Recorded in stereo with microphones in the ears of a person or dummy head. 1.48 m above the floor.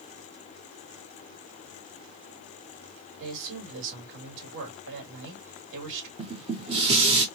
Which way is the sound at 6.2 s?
25° right (ahead or behind).